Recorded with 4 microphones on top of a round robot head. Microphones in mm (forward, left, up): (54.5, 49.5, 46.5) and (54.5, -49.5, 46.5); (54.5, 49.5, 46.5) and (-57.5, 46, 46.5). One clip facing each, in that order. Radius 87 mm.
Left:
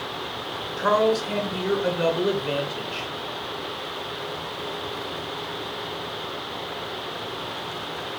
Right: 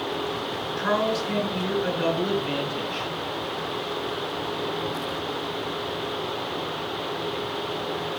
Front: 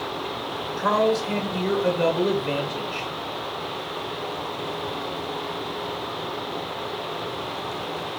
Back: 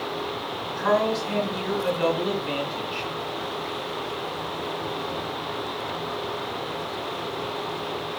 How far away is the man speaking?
About 2 m.